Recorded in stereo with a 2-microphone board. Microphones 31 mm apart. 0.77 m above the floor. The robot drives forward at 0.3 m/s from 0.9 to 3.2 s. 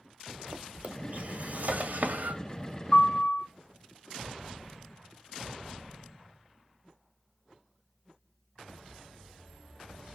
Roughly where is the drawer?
Right.